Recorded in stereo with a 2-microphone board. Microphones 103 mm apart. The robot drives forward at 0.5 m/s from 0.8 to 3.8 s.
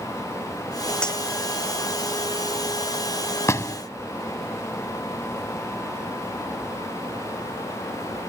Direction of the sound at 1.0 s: 10° left (ahead or behind).